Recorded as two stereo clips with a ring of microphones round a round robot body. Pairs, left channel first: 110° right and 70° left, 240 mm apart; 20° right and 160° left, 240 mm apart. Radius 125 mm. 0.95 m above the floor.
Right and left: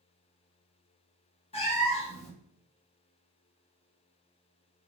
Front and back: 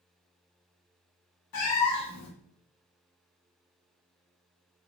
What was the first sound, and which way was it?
A cat meowing, 45° right.